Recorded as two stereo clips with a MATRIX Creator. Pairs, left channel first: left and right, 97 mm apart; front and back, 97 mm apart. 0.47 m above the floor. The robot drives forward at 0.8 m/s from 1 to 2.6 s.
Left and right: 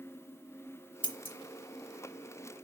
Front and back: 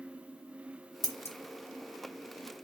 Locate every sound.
1.0 s scissors: 50° left, 0.8 m; by 1.4 s 70° left, 0.7 m